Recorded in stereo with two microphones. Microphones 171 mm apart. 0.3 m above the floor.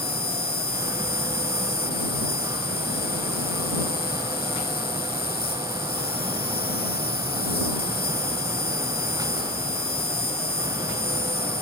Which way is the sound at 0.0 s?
70° left (ahead or behind).